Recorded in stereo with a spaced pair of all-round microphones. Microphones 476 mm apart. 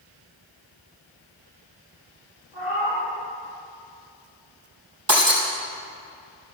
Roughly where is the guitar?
I don't hear a guitar.